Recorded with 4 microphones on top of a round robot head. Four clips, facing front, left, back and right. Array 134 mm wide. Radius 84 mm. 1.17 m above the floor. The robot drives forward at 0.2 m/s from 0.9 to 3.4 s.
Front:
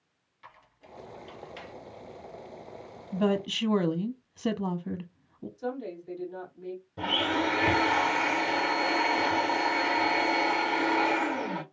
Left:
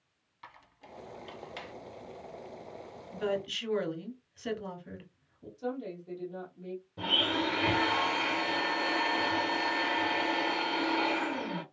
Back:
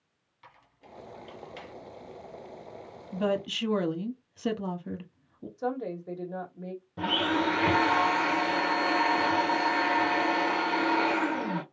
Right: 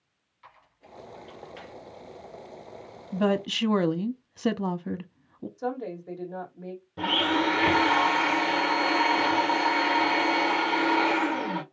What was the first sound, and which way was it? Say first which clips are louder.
A squeak: left 1 dB, front 2 dB; 95° left.